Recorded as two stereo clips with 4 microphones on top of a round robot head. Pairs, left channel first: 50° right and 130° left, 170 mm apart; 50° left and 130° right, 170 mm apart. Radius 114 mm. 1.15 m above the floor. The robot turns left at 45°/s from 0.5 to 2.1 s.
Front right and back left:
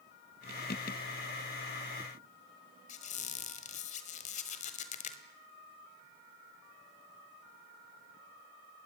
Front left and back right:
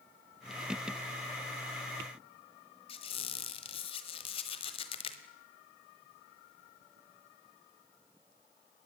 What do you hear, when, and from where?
2.9 s a squeak: 5° right, 1.4 m